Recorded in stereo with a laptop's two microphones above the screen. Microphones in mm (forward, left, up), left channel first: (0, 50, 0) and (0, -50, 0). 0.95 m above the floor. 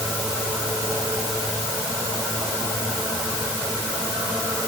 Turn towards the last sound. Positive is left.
No sound to turn to.